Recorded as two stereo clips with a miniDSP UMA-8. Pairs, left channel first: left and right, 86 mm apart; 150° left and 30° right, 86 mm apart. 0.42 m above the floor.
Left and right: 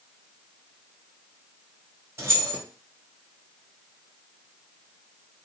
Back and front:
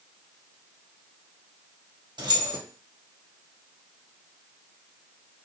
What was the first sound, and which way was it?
Keys jangling, 40° right.